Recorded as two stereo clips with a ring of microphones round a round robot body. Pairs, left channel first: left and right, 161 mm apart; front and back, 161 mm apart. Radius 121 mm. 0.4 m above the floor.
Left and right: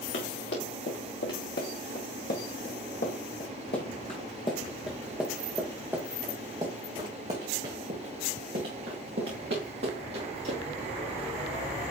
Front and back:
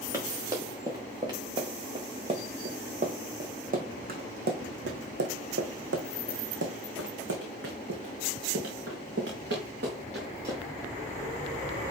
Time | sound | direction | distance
0.1 | running footsteps | 110° left | 3.5 m